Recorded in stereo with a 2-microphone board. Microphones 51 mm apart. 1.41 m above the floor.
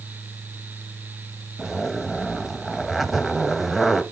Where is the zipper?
5° right (ahead or behind), 1.0 m.